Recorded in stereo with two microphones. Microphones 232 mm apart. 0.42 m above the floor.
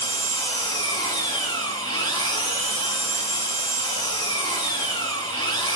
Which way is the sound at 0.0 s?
15° left (ahead or behind).